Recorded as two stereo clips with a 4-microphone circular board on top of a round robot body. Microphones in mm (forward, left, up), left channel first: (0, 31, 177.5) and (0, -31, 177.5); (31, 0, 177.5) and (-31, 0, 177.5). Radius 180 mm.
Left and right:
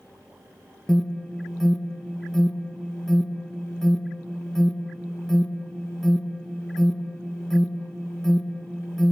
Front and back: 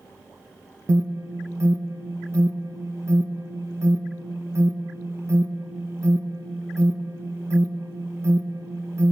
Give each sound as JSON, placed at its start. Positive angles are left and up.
{"t": 0.9, "sound": "an alarm", "azimuth_deg": 170, "distance_m": 1.7}